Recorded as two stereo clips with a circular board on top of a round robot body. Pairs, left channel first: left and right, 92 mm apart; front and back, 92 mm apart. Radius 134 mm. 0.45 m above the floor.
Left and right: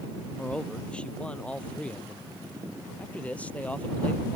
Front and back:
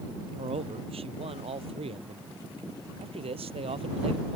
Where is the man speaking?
170° left; by 4.4 s 165° left.